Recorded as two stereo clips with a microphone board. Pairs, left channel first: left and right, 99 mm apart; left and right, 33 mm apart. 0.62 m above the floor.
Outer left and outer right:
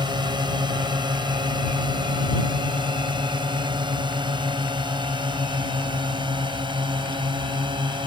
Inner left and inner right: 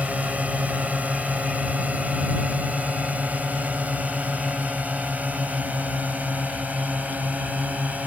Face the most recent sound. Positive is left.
turn(degrees=-55)  # may be behind; listen again after turning